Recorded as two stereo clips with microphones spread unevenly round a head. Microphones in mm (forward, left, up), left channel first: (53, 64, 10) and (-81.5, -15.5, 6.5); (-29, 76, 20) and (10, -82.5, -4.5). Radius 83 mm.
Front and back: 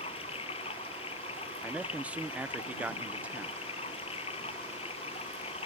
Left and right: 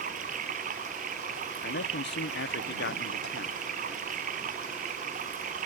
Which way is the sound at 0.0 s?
30° right.